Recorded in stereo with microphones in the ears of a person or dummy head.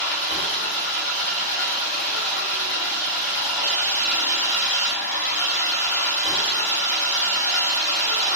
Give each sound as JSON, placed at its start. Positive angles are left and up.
{"t": 0.0, "sound": "an engine running", "side_deg": 55, "distance_m": 0.9}